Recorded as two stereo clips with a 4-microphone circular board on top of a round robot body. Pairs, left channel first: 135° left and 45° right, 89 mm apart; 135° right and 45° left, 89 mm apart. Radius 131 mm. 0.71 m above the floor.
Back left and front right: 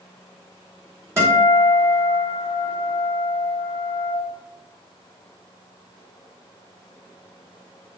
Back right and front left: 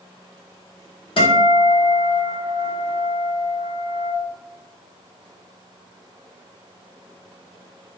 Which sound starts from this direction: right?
A guitar, at 1.2 s.